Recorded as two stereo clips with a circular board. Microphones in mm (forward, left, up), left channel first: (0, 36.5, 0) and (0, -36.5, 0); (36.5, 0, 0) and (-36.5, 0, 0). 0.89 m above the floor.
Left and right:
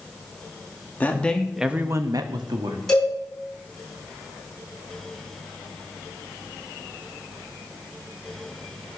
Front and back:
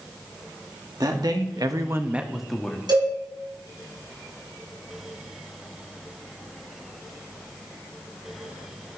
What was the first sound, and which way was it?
A man speaking, 155° left.